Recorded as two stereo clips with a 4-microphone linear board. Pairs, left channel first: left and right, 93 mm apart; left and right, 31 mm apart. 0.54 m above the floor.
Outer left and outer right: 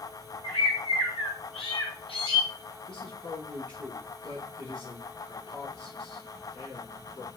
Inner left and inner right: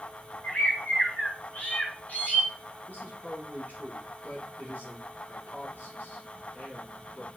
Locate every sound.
0.4 s a bird: 80° left, 4.5 m
2.9 s a man speaking: 75° left (ahead or behind), 4.5 m